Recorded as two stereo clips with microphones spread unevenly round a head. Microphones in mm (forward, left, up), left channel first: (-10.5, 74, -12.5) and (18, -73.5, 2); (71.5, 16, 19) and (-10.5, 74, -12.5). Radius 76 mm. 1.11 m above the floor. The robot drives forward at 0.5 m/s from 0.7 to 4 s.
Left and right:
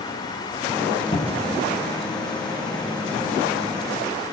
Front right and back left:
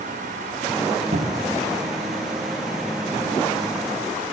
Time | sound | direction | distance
1.1 | a cupboard door | 165° left | 1.1 m